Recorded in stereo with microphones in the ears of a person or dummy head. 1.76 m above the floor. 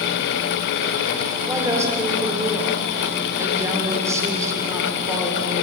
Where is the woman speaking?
15° right (ahead or behind), 5 m.